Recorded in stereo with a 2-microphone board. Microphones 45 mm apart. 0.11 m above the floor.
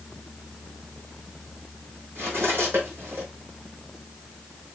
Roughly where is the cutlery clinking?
Right.